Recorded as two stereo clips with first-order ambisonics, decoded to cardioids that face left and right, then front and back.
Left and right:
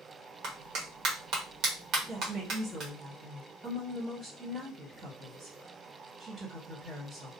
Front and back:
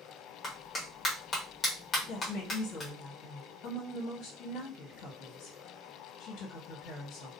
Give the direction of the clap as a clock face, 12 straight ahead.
2 o'clock.